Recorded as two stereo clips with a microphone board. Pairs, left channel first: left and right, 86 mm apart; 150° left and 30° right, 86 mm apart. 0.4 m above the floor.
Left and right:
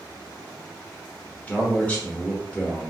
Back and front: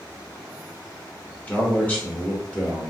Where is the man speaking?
125° left, 0.9 m.